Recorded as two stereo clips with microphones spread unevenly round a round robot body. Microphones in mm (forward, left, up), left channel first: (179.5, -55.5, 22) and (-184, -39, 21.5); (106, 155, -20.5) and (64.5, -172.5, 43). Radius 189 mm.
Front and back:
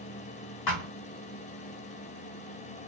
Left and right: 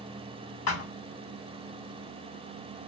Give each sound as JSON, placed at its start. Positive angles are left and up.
{"t": 0.7, "sound": "a thud", "azimuth_deg": 40, "distance_m": 1.4}